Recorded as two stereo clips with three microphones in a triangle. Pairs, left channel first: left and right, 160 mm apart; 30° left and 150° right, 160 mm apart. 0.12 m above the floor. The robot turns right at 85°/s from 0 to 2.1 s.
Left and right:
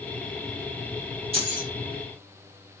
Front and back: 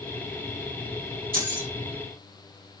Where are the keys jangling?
145° right, 2.5 m; by 1.7 s 110° right, 2.5 m.